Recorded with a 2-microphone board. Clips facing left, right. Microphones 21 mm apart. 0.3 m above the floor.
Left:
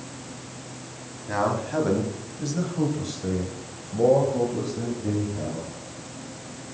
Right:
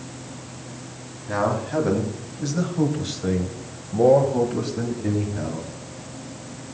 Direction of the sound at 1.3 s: 10° left (ahead or behind).